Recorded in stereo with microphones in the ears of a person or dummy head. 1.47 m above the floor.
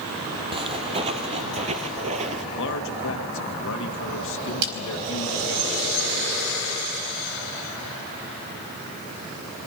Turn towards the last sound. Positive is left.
turn(degrees=-65)  # may be behind; listen again after turning